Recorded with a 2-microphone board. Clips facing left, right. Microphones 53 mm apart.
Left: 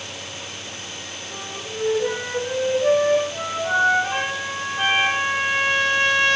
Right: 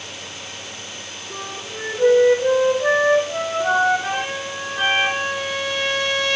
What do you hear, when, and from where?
1.3 s a flute: 50° right (ahead or behind), 2 m
4.1 s a trumpet: 35° left (ahead or behind), 1.5 m